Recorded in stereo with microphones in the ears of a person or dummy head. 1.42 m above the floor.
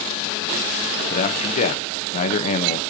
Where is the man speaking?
45° left (ahead or behind), 1.3 m.